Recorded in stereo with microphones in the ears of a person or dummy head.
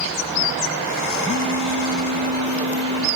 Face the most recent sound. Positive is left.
turn(degrees=20)  # may be behind; listen again after turning